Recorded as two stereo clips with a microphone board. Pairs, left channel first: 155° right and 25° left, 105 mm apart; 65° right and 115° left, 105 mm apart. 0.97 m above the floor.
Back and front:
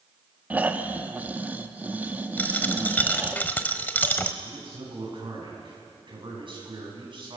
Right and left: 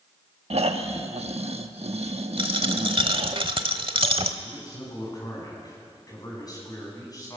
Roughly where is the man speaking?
Ahead.